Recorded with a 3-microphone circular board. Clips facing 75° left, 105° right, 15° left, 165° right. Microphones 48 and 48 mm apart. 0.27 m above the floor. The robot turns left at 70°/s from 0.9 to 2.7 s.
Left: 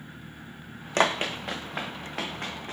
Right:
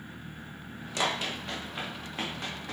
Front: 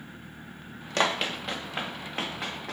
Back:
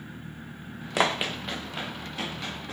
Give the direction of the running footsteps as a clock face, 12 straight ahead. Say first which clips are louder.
Left 6 dB, back 1 dB; 8 o'clock.